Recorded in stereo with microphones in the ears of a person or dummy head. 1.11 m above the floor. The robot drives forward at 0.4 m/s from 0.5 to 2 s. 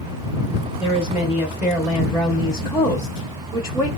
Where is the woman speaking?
Centre (ahead or behind), 1.2 m; by 3.9 s 5° right (ahead or behind), 0.8 m.